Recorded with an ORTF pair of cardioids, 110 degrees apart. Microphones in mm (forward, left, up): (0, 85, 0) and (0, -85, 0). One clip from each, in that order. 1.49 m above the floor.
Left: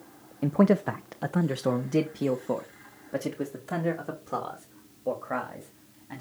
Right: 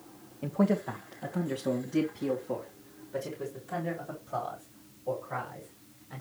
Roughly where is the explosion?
I don't hear an explosion.